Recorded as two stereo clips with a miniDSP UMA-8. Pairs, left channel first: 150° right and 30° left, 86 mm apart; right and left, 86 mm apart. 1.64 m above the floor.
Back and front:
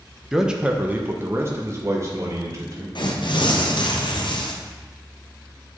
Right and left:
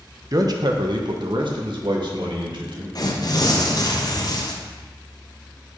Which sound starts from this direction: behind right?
Tearing paper, at 3.0 s.